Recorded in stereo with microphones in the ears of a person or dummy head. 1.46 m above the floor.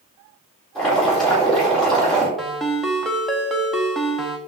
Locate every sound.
0.8 s boiling: centre (ahead or behind), 4 m
2.4 s a ringtone: 5° left (ahead or behind), 0.7 m